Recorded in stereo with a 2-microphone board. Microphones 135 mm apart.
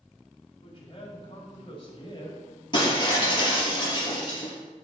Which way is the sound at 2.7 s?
35° left (ahead or behind).